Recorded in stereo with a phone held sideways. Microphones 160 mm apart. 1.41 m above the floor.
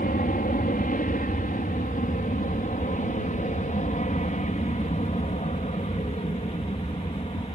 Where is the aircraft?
60° left (ahead or behind); by 7.6 s 40° left (ahead or behind).